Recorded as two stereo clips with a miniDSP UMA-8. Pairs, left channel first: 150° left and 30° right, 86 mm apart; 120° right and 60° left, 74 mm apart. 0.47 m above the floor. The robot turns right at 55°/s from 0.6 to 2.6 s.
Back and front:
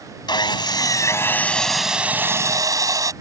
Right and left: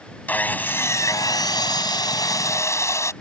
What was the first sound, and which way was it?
Sawing, 175° left.